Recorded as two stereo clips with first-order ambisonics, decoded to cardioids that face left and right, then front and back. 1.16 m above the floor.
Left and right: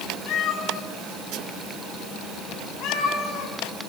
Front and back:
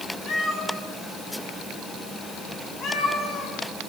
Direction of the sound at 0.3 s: 55° left.